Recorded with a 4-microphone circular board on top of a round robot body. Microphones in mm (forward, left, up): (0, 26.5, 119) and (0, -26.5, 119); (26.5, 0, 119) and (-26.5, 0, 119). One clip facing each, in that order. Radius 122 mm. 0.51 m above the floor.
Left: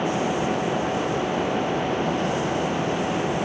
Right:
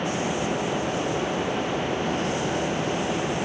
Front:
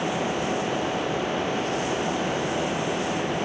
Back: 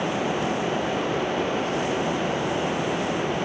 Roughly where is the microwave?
I don't hear a microwave.